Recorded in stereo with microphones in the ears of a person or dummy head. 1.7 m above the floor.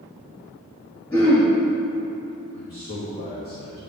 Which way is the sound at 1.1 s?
15° left (ahead or behind).